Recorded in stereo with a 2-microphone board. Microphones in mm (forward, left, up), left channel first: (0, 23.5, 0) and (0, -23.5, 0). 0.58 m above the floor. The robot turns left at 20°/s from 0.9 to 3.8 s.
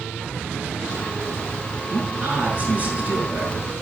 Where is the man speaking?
140° right, 6 m; by 3.6 s 175° right, 6 m.